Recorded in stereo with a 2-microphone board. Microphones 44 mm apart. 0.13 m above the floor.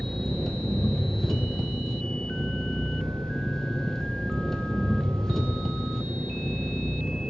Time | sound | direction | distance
0.0 | an engine running | 15° left (ahead or behind) | 1.5 m